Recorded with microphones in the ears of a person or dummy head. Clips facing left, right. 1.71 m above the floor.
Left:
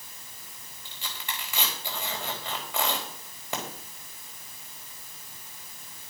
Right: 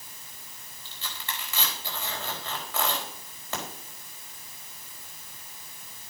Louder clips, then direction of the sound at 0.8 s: Even; 15° left (ahead or behind).